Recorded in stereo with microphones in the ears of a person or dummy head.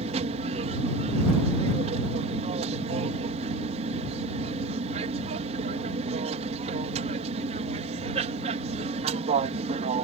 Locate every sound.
0.0 s an aircraft: 35° right (ahead or behind)